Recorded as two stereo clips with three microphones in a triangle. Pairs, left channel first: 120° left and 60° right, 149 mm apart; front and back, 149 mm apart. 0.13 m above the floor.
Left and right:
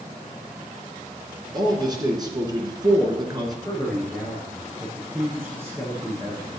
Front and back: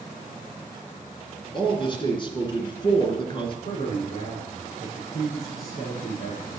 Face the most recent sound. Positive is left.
turn(degrees=15)